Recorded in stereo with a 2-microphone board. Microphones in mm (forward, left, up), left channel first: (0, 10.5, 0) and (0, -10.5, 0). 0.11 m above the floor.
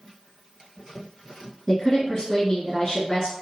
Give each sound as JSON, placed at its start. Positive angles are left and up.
{"t": 1.7, "sound": "a woman speaking", "side_deg": 30, "distance_m": 1.2}